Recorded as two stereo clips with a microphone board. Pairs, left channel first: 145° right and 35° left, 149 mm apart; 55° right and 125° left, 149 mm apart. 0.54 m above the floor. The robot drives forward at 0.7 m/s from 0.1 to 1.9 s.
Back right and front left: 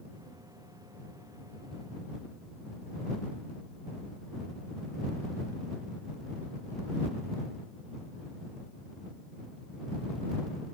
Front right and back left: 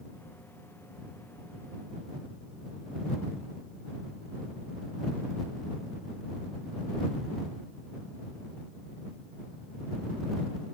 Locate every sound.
Only background noise.